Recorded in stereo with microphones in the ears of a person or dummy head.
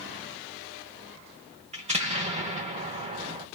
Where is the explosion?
30° right (ahead or behind), 1.2 m.